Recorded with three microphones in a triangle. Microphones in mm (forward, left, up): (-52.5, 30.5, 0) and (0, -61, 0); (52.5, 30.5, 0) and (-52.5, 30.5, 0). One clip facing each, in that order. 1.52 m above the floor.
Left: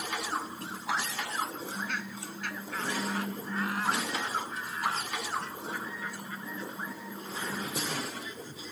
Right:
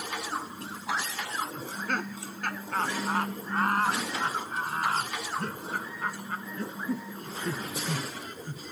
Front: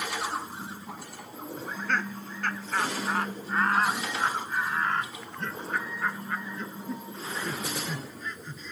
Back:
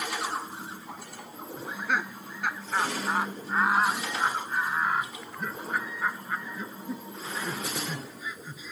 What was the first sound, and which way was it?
Laughter, 100° right.